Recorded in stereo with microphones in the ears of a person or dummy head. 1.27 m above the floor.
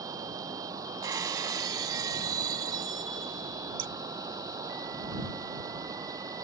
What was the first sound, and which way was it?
Running water, 20° right (ahead or behind).